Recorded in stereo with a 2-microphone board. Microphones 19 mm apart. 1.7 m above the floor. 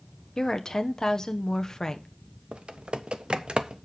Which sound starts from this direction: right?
Typing on a keyboard, at 2.5 s.